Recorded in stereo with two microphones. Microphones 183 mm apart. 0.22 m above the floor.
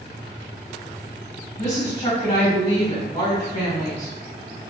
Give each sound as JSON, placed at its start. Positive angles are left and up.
{"t": 1.6, "sound": "a woman speaking", "side_deg": 40, "distance_m": 1.6}